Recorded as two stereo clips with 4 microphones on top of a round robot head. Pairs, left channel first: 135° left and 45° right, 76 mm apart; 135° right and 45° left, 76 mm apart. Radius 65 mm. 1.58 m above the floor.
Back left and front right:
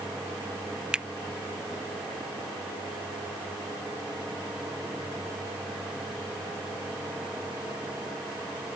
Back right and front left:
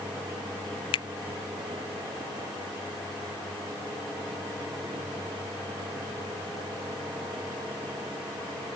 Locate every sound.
0.9 s a finger snap: 125° right